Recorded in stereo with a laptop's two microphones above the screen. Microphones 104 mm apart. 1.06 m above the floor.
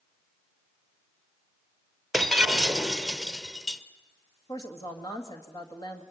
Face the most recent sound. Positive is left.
turn(degrees=35)  # may be behind; listen again after turning